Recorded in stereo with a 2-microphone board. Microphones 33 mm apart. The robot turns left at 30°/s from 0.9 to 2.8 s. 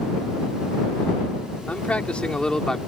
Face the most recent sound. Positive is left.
turn(degrees=20)